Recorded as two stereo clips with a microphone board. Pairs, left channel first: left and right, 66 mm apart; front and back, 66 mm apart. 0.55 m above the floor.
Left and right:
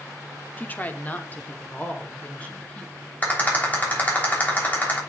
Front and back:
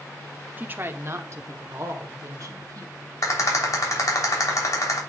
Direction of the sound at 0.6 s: 135° left.